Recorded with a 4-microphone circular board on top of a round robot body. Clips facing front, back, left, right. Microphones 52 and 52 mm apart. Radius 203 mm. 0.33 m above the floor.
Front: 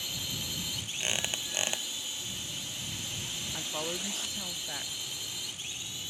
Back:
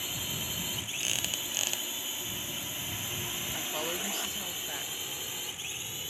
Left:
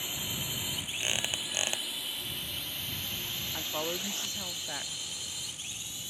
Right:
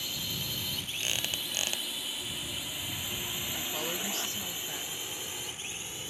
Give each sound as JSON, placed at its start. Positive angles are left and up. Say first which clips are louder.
{"t": 0.0, "sound": "a drone", "louder": "back 1 dB, even", "azimuth_deg": 140}
{"t": 1.0, "sound": "a squeak", "louder": "front 3 dB, left 1 dB", "azimuth_deg": 40}
{"t": 3.5, "sound": "a woman speaking", "louder": "back 1 dB, left 3 dB", "azimuth_deg": 90}